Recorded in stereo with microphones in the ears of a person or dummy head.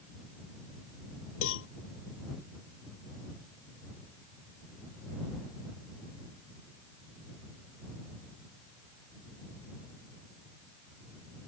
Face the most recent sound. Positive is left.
turn(degrees=70)  # may be behind; listen again after turning